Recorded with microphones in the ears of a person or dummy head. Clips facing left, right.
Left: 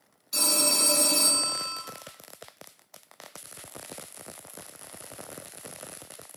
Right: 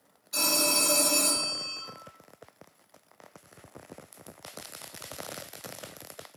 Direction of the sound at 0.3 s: 40° left (ahead or behind).